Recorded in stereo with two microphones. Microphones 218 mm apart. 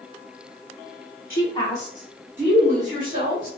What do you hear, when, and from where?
1.3 s a woman speaking: 50° left (ahead or behind), 0.6 m; by 3.5 s 25° right (ahead or behind), 2 m